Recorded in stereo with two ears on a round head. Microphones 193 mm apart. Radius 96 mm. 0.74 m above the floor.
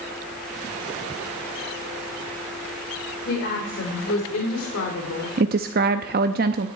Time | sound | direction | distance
3.3 | a woman speaking | 50° left (ahead or behind) | 3 m
5.4 | a woman speaking | 45° right (ahead or behind) | 0.6 m